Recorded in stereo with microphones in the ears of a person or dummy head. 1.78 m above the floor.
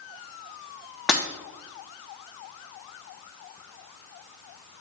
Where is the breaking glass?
5° left (ahead or behind), 0.9 m.